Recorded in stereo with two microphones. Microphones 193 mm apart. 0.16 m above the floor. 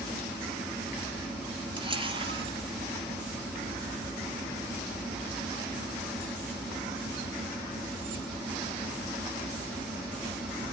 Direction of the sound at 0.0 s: 5° right (ahead or behind).